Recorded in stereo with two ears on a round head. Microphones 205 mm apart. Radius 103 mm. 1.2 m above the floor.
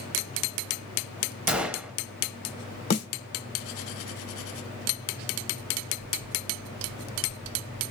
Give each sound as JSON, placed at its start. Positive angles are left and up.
{"t": 1.5, "sound": "a gunshot", "side_deg": -5, "distance_m": 0.5}
{"t": 2.9, "sound": "a snare drum", "side_deg": 50, "distance_m": 1.1}